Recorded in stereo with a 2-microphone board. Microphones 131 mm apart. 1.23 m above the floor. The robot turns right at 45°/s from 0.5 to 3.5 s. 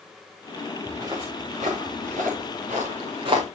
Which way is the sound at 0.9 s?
20° right (ahead or behind).